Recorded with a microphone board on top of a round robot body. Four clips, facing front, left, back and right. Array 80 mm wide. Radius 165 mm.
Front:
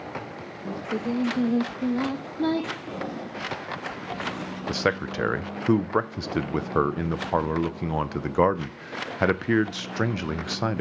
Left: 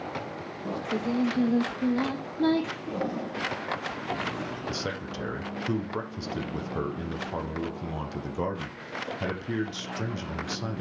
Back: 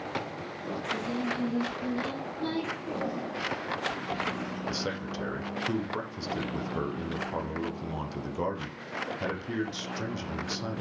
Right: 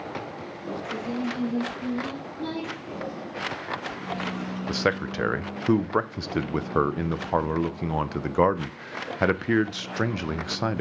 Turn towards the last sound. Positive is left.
turn(degrees=-40)